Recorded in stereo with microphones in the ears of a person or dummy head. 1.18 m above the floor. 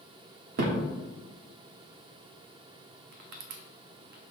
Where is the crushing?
65° right (ahead or behind), 1.0 m.